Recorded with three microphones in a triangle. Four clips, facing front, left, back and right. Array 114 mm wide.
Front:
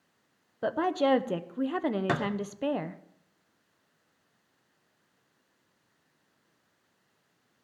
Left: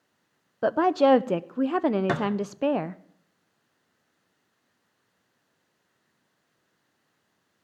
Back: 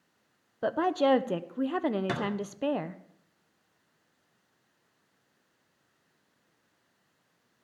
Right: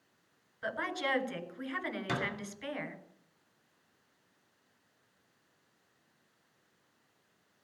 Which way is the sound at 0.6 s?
90° left.